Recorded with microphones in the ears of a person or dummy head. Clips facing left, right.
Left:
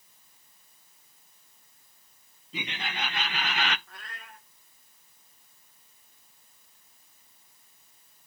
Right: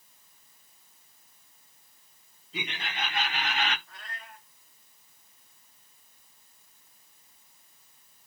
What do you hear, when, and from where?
2.5 s laughter: 60° left (ahead or behind), 2 m; by 3.8 s 45° left (ahead or behind), 0.5 m
3.9 s a cat meowing: 50° left (ahead or behind), 2.5 m